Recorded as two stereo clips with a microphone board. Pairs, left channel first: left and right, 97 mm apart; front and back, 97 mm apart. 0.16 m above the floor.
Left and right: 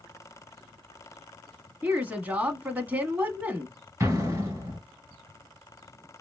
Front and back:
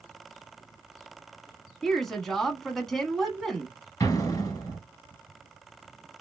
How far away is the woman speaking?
About 1.0 m.